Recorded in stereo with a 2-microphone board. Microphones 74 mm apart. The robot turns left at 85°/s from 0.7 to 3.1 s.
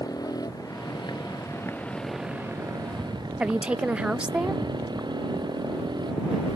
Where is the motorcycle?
120° left; by 6.6 s 85° right.